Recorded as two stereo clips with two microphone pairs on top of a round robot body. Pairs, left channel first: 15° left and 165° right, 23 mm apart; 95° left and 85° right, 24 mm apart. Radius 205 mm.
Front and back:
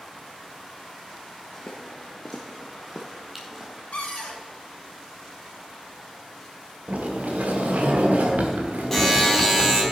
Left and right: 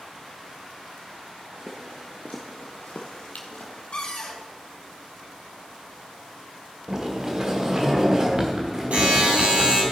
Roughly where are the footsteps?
Ahead right.